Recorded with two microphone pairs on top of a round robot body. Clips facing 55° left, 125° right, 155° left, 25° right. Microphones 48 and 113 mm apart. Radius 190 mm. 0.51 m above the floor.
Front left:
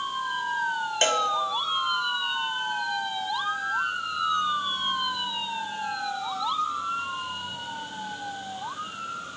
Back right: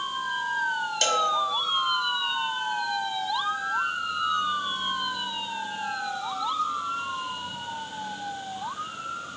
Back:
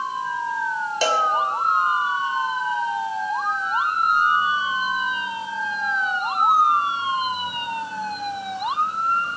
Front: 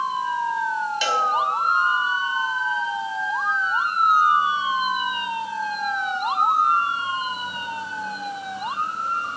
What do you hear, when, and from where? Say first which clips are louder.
1.0 s a cowbell: front left 1 dB, back 4 dB; 110° left, 1.7 m